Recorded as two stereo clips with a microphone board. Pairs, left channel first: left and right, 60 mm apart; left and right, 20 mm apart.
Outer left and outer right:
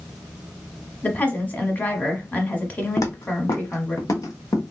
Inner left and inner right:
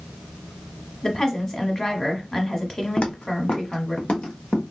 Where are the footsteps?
80° left, 0.6 m; by 4.6 s 60° left (ahead or behind), 1.4 m.